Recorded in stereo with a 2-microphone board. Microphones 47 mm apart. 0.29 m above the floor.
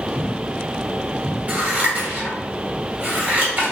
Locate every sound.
1.5 s scissors: 35° right (ahead or behind), 1.7 m